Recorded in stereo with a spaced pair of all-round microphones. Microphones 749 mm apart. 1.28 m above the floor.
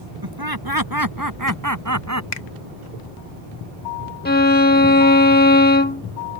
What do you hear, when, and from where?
0.2 s laughter: 30° right (ahead or behind); by 2.2 s 20° right (ahead or behind)
2.3 s a finger snap: 70° left (ahead or behind)
4.2 s a violin: 15° left (ahead or behind)